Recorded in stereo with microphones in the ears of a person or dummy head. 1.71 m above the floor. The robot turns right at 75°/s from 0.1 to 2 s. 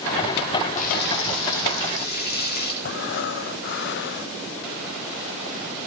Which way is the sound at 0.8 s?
40° left.